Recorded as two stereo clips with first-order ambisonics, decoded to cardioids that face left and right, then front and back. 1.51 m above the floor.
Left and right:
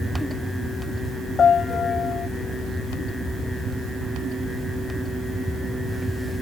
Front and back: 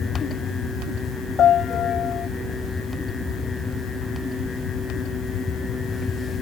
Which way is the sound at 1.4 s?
35° left.